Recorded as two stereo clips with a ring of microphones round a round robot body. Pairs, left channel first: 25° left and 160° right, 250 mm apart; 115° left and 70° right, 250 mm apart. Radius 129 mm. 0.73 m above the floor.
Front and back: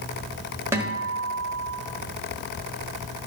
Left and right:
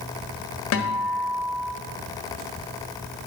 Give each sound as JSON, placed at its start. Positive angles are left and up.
{"t": 0.7, "sound": "a guitar", "azimuth_deg": 125, "distance_m": 1.3}